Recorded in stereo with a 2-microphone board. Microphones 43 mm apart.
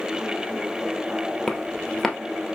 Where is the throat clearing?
I don't hear throat clearing.